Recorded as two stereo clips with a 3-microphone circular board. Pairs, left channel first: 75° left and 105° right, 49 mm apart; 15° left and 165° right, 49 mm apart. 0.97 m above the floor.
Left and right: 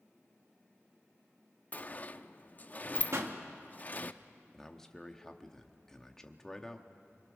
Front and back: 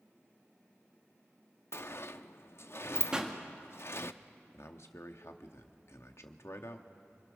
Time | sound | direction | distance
1.7 | a sliding door | 25° left | 0.6 m
3.1 | a pop | 95° right | 1.7 m
4.5 | a man speaking | 5° right | 1.3 m